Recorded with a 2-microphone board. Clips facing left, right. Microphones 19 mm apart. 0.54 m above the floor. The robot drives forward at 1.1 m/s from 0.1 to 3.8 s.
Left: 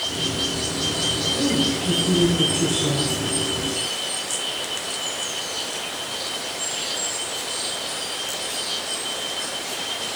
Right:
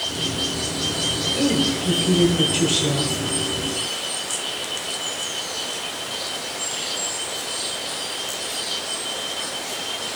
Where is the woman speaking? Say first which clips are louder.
Right 1 dB; 55° right (ahead or behind), 2 m; by 3.1 s 45° right (ahead or behind), 2.5 m.